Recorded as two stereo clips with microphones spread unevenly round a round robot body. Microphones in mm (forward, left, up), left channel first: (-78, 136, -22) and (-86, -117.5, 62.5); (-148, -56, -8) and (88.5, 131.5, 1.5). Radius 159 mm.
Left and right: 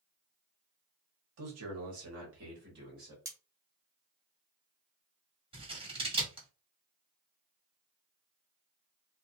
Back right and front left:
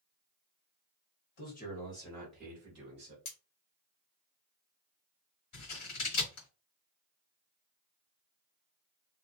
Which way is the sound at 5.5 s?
170° right.